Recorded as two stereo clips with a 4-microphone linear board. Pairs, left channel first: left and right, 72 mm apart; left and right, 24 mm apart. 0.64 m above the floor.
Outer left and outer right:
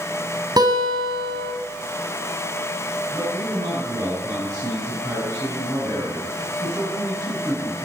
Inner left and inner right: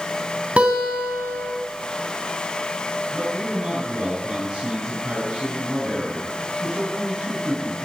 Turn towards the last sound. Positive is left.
turn(degrees=-35)  # may be behind; listen again after turning